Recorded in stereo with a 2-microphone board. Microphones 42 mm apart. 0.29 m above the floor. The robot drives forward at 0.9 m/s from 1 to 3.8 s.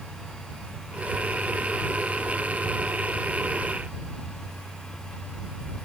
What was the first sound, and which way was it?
Only background noise.